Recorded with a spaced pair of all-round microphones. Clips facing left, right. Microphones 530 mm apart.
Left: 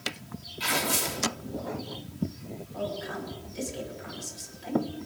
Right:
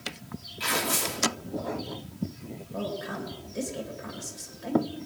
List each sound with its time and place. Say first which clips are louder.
0.6 s tearing paper: even; 5° left (ahead or behind), 3 m
2.7 s a woman speaking: right 2 dB; 65° right (ahead or behind), 2.5 m